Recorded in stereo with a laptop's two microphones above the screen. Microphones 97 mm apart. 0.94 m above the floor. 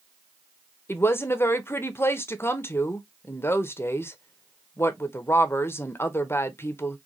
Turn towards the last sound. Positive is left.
turn(degrees=25)  # may be behind; listen again after turning